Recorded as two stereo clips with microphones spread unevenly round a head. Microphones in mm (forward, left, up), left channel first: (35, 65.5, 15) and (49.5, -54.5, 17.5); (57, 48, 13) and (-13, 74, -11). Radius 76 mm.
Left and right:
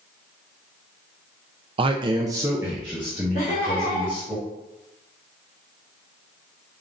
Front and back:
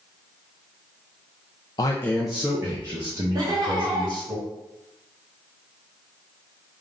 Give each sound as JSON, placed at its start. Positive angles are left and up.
{"t": 1.8, "sound": "a man speaking", "azimuth_deg": -70, "distance_m": 0.5}
{"t": 3.4, "sound": "laughter", "azimuth_deg": 135, "distance_m": 1.2}